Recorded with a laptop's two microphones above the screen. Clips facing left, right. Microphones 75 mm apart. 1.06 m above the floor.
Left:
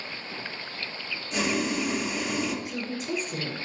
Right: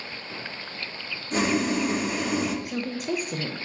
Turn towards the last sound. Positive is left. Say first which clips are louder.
# right 3 dB
turn(degrees=-55)  # may be behind; listen again after turning